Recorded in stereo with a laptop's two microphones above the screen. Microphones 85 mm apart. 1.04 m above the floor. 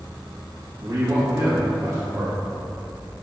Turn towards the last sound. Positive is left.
turn(degrees=-45)  # may be behind; listen again after turning